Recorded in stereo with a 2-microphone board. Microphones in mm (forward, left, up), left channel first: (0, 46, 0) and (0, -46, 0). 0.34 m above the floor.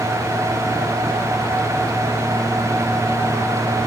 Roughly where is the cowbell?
No cowbell in this recording.